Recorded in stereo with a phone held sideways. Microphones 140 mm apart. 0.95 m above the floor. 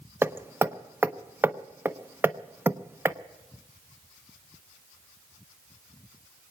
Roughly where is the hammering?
Centre.